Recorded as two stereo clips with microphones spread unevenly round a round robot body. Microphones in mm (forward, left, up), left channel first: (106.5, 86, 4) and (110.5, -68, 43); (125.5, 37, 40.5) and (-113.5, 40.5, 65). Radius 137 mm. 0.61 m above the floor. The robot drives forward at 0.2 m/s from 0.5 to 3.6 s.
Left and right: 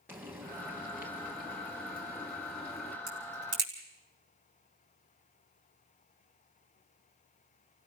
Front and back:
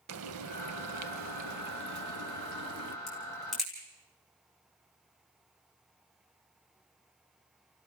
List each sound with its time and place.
0.1 s frying: 160° right, 0.6 m; by 3.0 s 170° right, 1.1 m
3.1 s a crack: 90° right, 4.5 m